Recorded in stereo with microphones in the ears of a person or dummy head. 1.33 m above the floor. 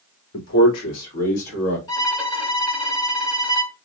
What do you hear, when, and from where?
0.3 s a man speaking: 80° left, 2.5 m; by 1.8 s 60° left (ahead or behind), 2 m
1.9 s a violin: 20° left (ahead or behind), 1.4 m